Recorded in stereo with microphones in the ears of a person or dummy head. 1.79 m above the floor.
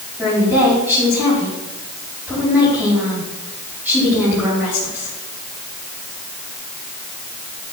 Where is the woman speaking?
10° right (ahead or behind), 4 m.